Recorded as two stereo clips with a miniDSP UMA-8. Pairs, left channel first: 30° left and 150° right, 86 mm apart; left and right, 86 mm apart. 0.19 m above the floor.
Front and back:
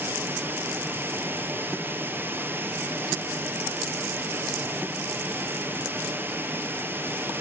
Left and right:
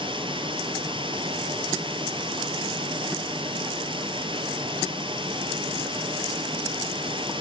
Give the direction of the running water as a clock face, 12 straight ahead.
3 o'clock.